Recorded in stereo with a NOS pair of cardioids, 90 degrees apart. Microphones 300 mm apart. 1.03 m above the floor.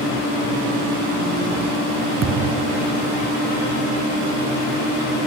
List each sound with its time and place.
2.2 s a thud: 60° right